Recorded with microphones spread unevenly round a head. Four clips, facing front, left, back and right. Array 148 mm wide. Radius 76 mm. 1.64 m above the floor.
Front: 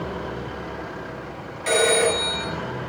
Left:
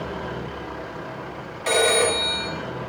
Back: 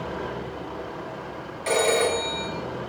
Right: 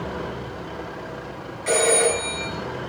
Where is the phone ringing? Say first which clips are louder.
Even, front 2 dB; 100° left, 1.2 m.